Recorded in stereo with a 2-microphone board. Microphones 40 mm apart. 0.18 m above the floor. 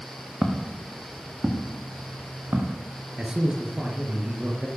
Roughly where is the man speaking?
Right.